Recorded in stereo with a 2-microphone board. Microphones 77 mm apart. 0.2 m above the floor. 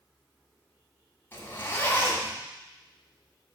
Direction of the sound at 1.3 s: 30° left (ahead or behind).